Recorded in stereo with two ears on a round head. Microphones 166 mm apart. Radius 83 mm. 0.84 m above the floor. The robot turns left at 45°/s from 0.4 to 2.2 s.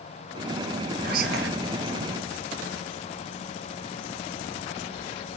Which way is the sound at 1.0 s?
45° right (ahead or behind).